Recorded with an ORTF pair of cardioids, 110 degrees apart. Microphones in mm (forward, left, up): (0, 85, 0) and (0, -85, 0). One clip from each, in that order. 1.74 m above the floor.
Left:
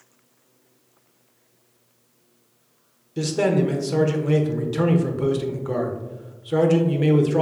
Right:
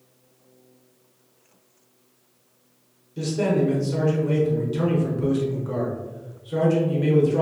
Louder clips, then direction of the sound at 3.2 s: Left 2 dB; 35° left.